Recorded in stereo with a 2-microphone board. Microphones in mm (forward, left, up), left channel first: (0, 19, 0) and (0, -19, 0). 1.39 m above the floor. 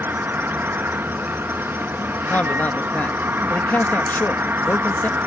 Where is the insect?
80° right.